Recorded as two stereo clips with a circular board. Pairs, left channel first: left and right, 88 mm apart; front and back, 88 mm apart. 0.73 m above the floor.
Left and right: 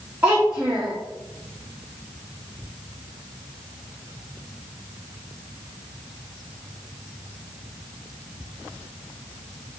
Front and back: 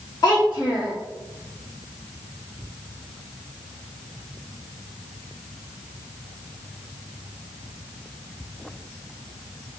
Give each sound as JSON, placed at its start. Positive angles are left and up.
{"t": 0.2, "sound": "a child speaking", "azimuth_deg": -25, "distance_m": 0.8}